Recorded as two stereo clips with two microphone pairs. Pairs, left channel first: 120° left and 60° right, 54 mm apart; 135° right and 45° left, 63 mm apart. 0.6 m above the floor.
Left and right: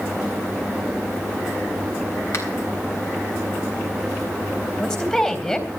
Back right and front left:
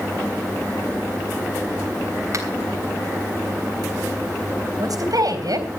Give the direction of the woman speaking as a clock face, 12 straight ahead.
10 o'clock.